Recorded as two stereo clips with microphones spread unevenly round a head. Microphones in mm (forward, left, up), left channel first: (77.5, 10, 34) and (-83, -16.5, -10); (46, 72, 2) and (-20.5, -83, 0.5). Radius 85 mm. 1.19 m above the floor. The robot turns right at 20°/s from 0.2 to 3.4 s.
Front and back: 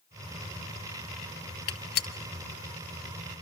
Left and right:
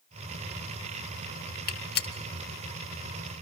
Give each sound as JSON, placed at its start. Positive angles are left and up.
{"t": 1.7, "sound": "a gunshot", "azimuth_deg": 35, "distance_m": 2.5}